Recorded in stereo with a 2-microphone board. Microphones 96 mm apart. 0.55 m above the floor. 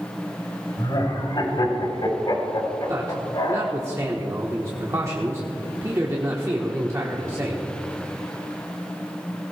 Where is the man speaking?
35° right (ahead or behind), 1.4 m.